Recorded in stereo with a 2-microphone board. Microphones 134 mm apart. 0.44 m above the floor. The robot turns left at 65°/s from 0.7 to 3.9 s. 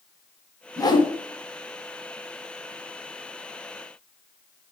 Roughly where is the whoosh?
Left.